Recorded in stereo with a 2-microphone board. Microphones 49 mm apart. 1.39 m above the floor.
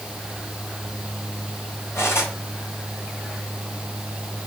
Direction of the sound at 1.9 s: 70° left (ahead or behind).